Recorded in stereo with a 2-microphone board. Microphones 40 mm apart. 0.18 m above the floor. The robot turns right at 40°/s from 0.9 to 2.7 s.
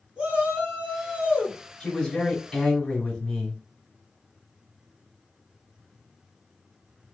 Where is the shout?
25° right (ahead or behind), 1.1 m; by 1.6 s 30° right (ahead or behind), 1.1 m.